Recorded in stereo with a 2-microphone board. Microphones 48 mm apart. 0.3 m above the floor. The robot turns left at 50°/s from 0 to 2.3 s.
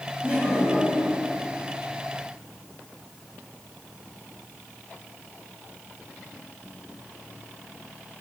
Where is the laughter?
140° right, 2 m; by 1.2 s 175° left, 2 m.